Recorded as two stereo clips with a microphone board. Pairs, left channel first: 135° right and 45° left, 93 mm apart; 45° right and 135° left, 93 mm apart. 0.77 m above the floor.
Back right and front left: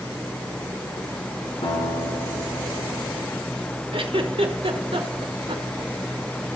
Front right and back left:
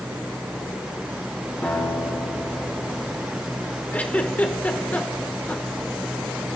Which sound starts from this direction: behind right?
A guitar, at 1.6 s.